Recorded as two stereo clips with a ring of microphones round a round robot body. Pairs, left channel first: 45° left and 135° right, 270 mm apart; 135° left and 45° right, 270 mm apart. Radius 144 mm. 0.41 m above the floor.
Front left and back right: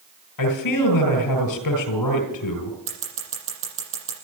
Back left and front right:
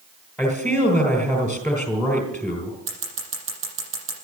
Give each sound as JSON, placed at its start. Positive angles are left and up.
{"t": 0.4, "sound": "a man speaking", "azimuth_deg": 45, "distance_m": 3.5}
{"t": 2.9, "sound": "scissors", "azimuth_deg": -90, "distance_m": 7.0}